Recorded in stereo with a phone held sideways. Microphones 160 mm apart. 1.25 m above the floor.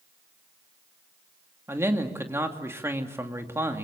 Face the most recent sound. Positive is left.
turn(degrees=-15)  # may be behind; listen again after turning